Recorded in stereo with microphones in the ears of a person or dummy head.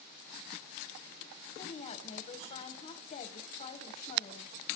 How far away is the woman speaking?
About 1.3 m.